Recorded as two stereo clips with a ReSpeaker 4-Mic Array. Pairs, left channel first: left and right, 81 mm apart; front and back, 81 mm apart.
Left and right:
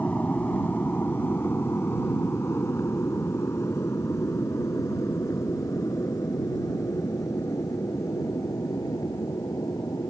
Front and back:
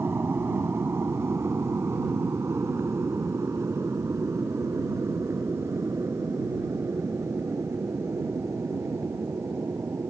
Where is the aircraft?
145° left; by 10.1 s 130° left.